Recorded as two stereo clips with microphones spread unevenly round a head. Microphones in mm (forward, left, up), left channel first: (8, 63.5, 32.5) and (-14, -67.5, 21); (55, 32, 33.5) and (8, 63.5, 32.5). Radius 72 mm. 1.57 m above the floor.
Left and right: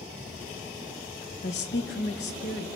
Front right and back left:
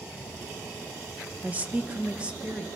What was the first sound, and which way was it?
A woman speaking, 85° left.